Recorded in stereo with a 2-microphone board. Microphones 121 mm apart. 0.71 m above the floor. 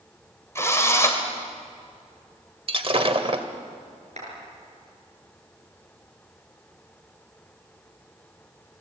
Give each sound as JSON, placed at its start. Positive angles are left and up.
{"t": 0.6, "sound": "a drill", "side_deg": 20, "distance_m": 3.0}
{"t": 2.7, "sound": "breaking glass", "side_deg": -45, "distance_m": 1.9}
{"t": 4.2, "sound": "a clap", "side_deg": -60, "distance_m": 8.5}